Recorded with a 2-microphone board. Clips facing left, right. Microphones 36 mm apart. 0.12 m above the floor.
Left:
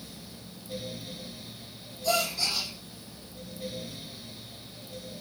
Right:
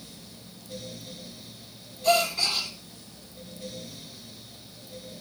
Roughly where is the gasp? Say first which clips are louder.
Right 5 dB; right.